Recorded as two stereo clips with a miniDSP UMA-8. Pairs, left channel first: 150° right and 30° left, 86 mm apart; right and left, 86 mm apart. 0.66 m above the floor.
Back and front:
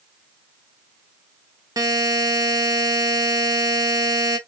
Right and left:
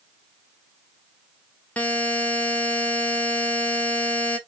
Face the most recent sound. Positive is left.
turn(degrees=-15)